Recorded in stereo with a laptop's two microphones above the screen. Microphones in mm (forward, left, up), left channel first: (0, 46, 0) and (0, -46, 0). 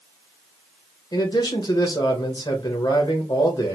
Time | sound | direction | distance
1.1 | a man speaking | 50° left (ahead or behind) | 1.2 m